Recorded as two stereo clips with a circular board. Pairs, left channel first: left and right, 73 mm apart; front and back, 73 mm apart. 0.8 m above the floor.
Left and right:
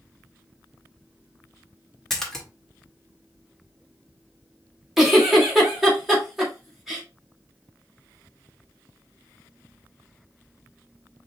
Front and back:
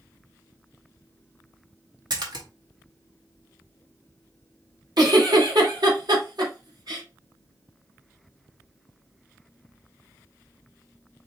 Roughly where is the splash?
Behind.